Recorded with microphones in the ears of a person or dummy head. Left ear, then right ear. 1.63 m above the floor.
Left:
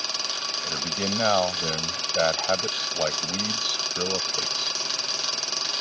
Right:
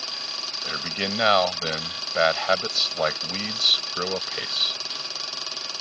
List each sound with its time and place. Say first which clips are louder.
0.6 s a man speaking: even; 70° right (ahead or behind)